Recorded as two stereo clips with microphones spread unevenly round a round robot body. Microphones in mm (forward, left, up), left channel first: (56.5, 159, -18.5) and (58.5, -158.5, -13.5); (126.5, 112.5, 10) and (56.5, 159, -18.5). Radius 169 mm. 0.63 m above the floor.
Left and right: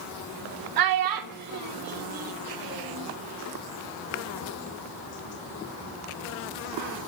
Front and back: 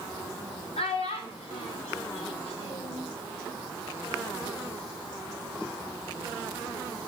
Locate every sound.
0.8 s a child speaking: 80° right, 1.0 m; by 3.0 s 40° right, 2.5 m